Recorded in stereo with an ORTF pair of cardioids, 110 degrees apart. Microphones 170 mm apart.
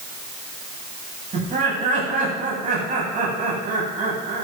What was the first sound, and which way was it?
Laughter, 45° right.